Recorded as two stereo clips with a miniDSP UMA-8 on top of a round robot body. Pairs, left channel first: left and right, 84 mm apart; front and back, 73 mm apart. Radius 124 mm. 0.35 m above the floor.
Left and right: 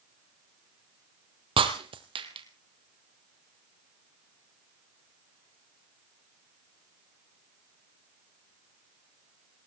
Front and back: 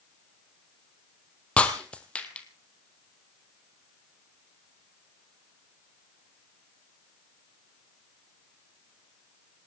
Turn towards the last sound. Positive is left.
turn(degrees=-75)